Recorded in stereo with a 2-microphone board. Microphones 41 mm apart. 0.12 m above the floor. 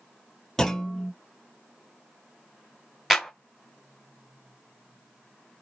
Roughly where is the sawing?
I don't hear sawing.